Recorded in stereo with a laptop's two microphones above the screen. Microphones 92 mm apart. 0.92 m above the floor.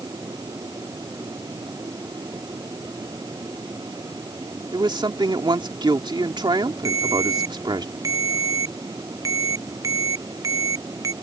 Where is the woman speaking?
55° right (ahead or behind).